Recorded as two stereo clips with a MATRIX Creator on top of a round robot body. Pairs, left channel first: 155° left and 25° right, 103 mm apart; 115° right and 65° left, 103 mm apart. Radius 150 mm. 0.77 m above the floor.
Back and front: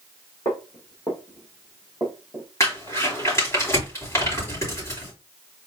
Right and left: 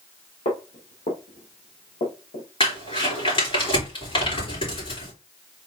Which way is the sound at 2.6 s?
140° right.